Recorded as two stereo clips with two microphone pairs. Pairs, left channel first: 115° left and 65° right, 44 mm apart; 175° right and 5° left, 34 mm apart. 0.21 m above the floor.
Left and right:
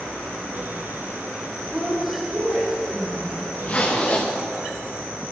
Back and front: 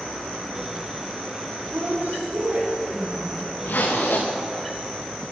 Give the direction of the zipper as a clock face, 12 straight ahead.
6 o'clock.